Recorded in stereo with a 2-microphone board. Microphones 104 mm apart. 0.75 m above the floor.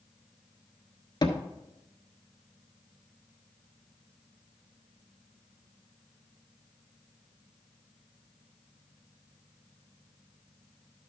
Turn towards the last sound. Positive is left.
turn(degrees=45)  # may be behind; listen again after turning